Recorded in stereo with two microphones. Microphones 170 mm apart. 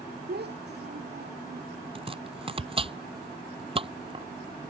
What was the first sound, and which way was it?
A child speaking, 75° right (ahead or behind).